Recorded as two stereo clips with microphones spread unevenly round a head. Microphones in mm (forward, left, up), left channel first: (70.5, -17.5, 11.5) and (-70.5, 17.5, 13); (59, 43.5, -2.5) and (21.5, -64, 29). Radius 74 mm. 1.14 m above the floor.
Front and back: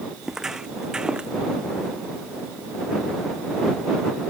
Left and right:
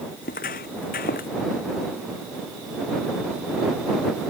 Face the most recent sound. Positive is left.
turn(degrees=80)